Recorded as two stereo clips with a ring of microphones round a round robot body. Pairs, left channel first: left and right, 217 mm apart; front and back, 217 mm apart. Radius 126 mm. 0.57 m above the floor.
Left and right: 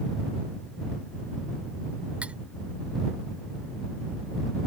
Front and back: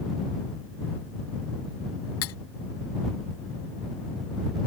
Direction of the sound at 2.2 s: 5° right.